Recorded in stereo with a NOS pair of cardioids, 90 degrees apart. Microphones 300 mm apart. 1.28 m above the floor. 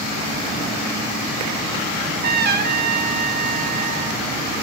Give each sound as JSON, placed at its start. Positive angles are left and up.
{"t": 2.0, "sound": "a trumpet", "azimuth_deg": -35, "distance_m": 0.9}